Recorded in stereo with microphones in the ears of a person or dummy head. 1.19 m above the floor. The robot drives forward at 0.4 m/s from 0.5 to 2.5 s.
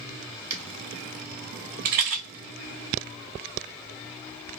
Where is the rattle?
45° right (ahead or behind), 0.8 m.